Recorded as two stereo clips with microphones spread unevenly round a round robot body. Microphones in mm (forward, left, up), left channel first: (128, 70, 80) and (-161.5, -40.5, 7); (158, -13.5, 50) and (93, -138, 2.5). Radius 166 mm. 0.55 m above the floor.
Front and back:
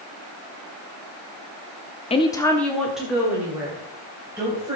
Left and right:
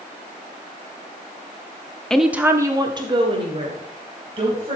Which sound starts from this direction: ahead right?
A woman speaking, at 2.1 s.